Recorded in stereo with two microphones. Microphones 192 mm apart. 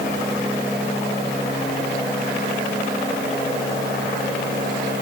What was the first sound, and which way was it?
Only background noise.